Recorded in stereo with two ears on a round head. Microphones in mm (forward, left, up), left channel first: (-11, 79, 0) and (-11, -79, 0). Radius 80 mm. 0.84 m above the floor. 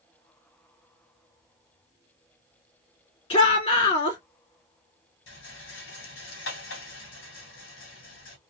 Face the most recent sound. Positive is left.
turn(degrees=80)